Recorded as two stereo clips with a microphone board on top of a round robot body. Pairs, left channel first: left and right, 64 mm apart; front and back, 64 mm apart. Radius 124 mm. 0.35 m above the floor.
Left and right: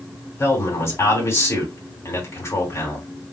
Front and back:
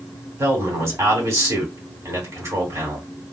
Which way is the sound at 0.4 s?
135° left.